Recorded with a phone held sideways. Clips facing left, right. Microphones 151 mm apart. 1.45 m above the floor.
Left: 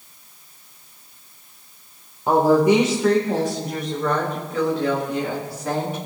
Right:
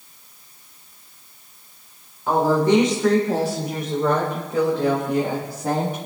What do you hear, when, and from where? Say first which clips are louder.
2.3 s a woman speaking: left 2 dB; 30° left (ahead or behind), 1.4 m; by 6.0 s 50° right (ahead or behind), 3 m